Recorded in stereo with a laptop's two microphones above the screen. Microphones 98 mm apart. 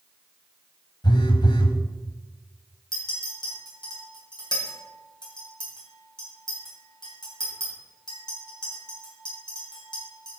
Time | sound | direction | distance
1.0 | a phone buzzing | 50° left (ahead or behind) | 1.0 m
2.9 | a clink | 45° left (ahead or behind) | 3 m